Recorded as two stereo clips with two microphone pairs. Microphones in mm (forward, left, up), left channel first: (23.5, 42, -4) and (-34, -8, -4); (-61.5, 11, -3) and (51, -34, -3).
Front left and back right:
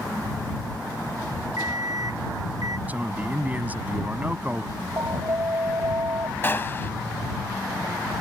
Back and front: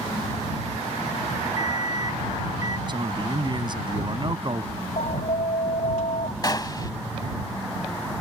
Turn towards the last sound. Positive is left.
turn(degrees=100)